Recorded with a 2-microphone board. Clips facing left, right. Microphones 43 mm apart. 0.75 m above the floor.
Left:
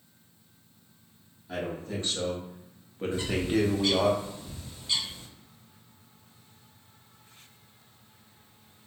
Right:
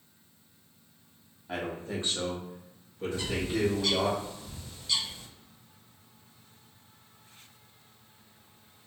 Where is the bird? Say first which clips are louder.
Left 4 dB; 20° left (ahead or behind), 1.0 m.